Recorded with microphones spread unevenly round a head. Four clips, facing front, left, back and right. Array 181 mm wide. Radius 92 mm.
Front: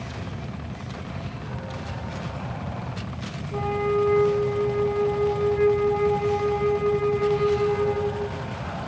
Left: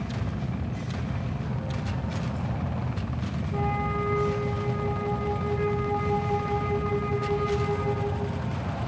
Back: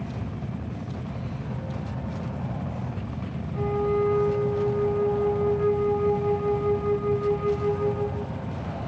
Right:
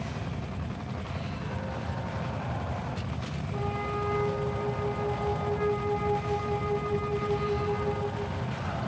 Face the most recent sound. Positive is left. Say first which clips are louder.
# left 4 dB, front 1 dB
turn(degrees=15)